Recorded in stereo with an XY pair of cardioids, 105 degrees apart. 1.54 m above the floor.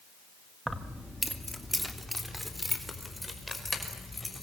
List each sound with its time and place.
0.7 s keys jangling: 10° right, 1.8 m; by 4.4 s 10° left, 6.5 m